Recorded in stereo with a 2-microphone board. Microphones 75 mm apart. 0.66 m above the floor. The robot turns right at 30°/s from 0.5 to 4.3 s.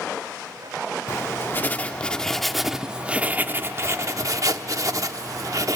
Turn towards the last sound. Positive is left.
turn(degrees=-125)